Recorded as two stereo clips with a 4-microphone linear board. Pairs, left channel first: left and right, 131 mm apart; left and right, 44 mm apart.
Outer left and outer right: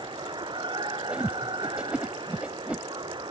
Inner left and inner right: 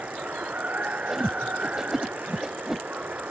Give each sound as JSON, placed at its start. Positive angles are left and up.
{"t": 0.0, "sound": "running water", "side_deg": -40}
{"t": 1.1, "sound": "a whoosh", "side_deg": -10}